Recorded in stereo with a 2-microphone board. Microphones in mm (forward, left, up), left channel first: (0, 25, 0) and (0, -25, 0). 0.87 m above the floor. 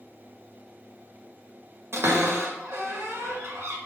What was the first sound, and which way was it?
A cupboard door, 65° right (ahead or behind).